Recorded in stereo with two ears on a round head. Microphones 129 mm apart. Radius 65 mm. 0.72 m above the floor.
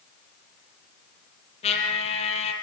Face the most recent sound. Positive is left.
turn(degrees=45)  # may be behind; listen again after turning